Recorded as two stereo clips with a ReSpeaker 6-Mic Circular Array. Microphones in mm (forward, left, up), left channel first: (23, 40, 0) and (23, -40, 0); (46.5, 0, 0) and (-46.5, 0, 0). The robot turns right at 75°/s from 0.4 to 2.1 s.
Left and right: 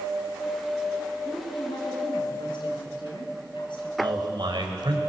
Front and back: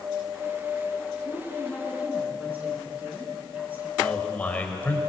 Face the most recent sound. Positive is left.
turn(degrees=-75)